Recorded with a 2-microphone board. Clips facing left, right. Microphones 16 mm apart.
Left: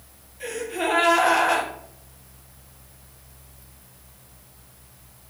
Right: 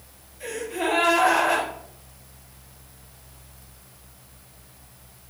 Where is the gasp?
35° left (ahead or behind), 1.4 m.